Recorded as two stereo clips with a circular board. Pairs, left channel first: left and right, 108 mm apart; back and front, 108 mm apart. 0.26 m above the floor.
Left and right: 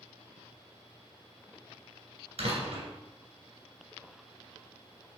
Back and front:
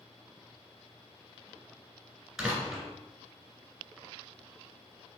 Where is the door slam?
85° right, 2.5 m.